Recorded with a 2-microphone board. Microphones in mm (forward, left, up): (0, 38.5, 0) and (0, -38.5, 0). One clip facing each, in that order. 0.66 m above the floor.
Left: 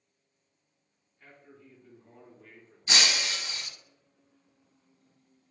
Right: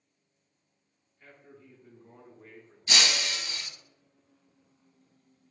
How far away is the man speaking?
About 0.9 m.